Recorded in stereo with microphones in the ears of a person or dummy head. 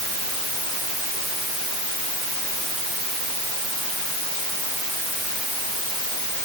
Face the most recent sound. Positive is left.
No sound to turn to.